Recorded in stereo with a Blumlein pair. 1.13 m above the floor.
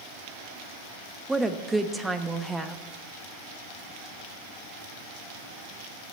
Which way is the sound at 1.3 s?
5° right.